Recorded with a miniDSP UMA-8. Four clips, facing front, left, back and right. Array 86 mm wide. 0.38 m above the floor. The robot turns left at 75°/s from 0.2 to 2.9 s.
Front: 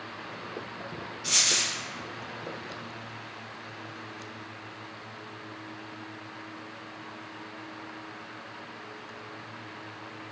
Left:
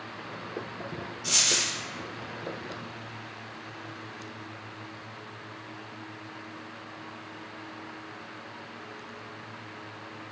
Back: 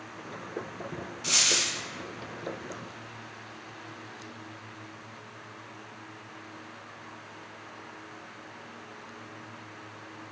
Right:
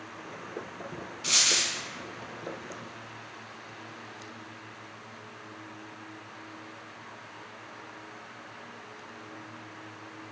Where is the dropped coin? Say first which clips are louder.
Right 1 dB, back 1 dB; 110° right, 1.3 m; by 1.7 s 140° right, 1.3 m.